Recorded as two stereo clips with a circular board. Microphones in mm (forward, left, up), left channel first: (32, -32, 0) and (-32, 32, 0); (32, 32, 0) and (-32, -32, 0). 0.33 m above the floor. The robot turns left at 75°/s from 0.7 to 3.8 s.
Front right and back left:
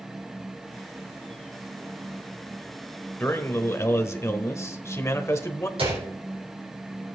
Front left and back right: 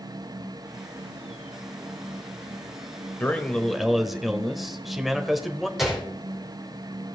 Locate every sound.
3.2 s a man speaking: 5° right, 1.2 m; by 5.7 s 50° right, 1.2 m
5.8 s a gunshot: 140° left, 5 m